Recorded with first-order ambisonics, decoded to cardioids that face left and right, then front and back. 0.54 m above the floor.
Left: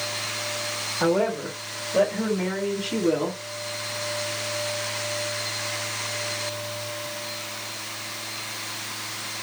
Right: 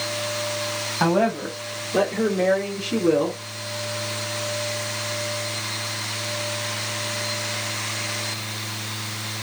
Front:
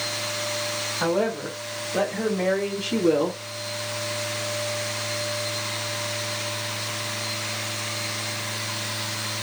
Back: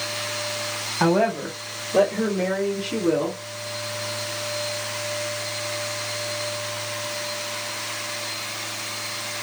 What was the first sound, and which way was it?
A woman speaking, 145° right.